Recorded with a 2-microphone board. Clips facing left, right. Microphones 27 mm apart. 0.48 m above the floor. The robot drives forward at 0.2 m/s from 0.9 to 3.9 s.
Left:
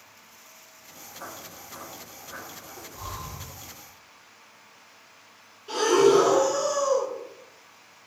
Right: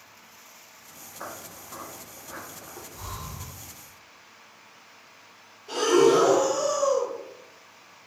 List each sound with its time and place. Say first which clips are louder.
1.2 s footsteps: right 2 dB; 45° right (ahead or behind), 1.0 m; by 2.8 s 50° right (ahead or behind), 1.1 m
2.9 s breathing: left 2 dB; 30° right (ahead or behind), 1.6 m
5.7 s breathing: even; 25° left (ahead or behind), 1.3 m